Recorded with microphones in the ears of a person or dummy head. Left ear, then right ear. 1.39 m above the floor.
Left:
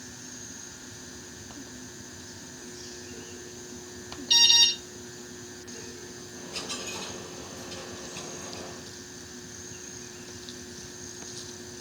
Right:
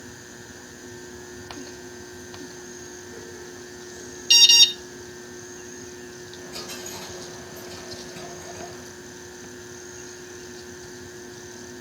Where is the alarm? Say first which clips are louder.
Right 5 dB; 75° right (ahead or behind), 1.8 m.